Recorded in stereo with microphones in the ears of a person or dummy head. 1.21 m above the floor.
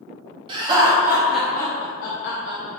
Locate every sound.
0.5 s laughter: 30° right (ahead or behind), 1.0 m; by 2.7 s 75° left (ahead or behind), 0.7 m